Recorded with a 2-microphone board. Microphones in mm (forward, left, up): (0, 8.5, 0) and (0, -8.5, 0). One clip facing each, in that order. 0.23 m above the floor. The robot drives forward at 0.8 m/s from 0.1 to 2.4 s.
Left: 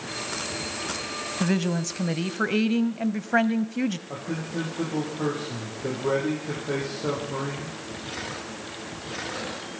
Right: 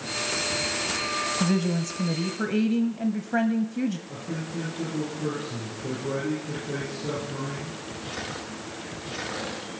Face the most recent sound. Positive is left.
turn(degrees=85)